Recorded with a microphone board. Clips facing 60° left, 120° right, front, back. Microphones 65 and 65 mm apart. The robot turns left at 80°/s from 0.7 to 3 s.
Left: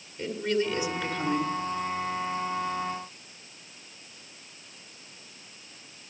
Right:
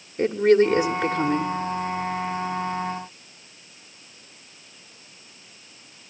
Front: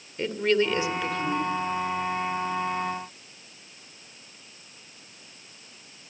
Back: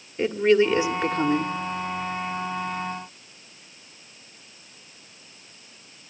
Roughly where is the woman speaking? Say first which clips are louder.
Right 11 dB, back 5 dB; right.